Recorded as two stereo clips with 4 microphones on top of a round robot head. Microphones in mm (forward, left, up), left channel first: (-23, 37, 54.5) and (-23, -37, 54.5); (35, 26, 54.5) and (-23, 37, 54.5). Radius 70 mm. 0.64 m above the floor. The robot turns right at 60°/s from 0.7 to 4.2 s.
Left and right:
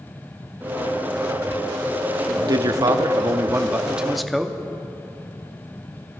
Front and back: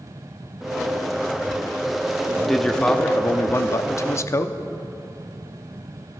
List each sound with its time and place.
2.4 s a man speaking: 110° right, 0.9 m; by 4.5 s straight ahead, 0.9 m